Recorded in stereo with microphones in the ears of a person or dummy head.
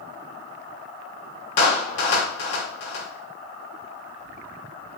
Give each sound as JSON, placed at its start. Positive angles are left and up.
{"t": 1.6, "sound": "a clap", "side_deg": 70, "distance_m": 2.5}